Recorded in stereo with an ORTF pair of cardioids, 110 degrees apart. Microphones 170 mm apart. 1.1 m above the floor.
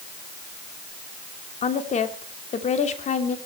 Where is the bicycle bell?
No bicycle bell in this recording.